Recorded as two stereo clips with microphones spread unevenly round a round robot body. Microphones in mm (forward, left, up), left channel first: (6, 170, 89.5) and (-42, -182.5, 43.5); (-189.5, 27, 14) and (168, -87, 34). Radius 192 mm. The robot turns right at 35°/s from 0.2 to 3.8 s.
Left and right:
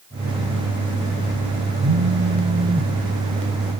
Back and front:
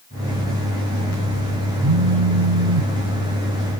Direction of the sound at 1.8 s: 55° right.